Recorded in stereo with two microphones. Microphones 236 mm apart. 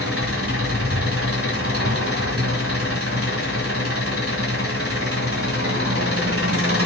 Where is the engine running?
65° right (ahead or behind), 1.8 m.